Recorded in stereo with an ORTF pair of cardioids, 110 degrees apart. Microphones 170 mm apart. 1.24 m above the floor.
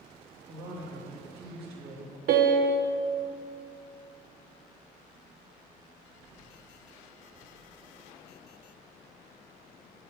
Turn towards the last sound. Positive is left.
turn(degrees=-65)